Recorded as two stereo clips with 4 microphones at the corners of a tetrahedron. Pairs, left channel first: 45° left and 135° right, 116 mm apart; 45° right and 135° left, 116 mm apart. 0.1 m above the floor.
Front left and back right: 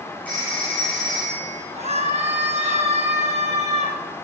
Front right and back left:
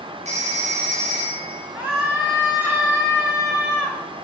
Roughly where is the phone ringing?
Behind left.